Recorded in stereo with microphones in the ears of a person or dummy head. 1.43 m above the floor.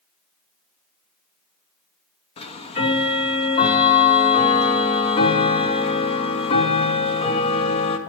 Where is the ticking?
30° left (ahead or behind), 0.7 m.